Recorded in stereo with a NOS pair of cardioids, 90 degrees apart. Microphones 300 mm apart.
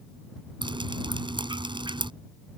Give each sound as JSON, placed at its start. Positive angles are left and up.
{"t": 0.6, "sound": "dripping", "azimuth_deg": -15}